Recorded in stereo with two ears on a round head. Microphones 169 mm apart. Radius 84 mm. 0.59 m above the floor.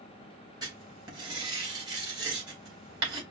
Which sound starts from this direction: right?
Writing, at 0.6 s.